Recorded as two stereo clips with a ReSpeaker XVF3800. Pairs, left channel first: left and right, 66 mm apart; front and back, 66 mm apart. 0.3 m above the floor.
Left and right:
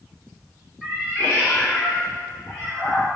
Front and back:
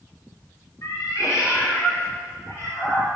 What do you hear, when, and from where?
0.8 s a cat meowing: 20° left, 1.7 m; by 3.1 s 40° left, 4 m